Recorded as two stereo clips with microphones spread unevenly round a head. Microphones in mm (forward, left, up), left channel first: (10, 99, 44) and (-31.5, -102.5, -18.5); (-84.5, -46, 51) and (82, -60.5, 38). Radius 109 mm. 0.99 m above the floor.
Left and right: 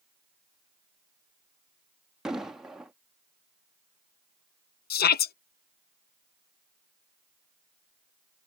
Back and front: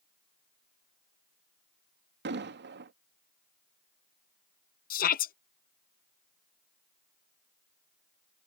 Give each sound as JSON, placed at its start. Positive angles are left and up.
{"t": 2.2, "sound": "an explosion", "azimuth_deg": -20}
{"t": 4.9, "sound": "a shout", "azimuth_deg": 130}